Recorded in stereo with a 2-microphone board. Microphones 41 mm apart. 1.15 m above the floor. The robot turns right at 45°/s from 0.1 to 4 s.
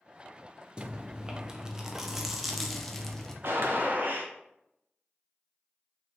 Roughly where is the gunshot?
Right.